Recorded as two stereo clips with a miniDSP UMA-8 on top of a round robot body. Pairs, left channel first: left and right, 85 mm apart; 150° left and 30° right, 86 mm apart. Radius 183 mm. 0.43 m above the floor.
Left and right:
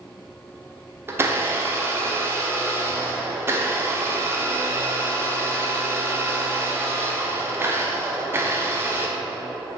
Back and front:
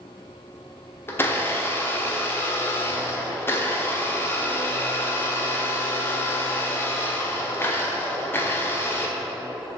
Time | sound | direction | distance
1.1 | a blender | 150° right | 1.7 m